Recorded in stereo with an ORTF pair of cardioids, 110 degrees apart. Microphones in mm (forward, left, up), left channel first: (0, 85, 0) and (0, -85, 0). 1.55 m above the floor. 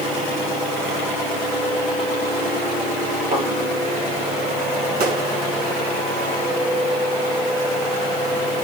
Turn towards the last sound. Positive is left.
turn(degrees=-65)